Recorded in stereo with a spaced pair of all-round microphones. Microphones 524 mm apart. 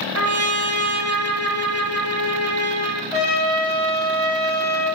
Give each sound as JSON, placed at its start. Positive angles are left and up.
{"t": 0.1, "sound": "a trumpet", "side_deg": -30, "distance_m": 0.9}
{"t": 3.1, "sound": "a trumpet", "side_deg": -75, "distance_m": 4.0}